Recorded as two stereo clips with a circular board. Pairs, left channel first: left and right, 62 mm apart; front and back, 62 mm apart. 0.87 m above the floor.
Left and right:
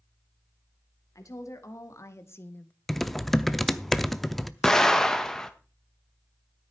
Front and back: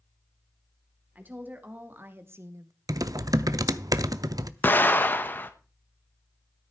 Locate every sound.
1.1 s a woman speaking: 120° left, 2 m; by 2.7 s 155° left, 0.6 m
2.9 s typing on a keyboard: 175° left, 0.6 m
4.6 s an explosion: 15° left, 1.0 m